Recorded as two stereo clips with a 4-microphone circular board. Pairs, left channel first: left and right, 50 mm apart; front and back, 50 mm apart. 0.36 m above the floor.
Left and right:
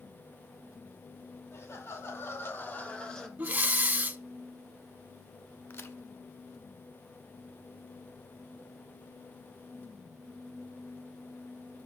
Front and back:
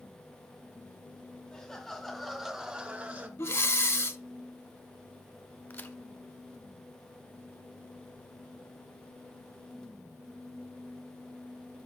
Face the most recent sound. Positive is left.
turn(degrees=50)